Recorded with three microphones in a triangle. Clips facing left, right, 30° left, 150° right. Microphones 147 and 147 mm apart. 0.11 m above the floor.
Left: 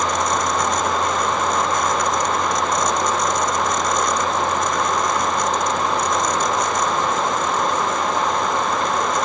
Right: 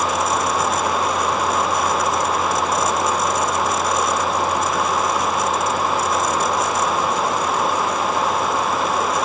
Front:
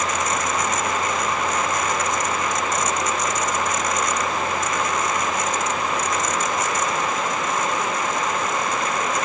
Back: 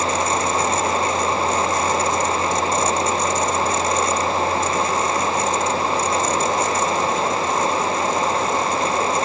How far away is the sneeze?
I don't hear a sneeze.